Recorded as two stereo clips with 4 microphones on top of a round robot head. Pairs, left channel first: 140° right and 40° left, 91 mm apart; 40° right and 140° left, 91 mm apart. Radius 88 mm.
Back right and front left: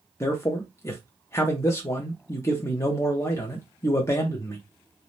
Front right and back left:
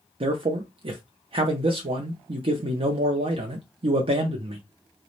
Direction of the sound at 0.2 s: 160° left.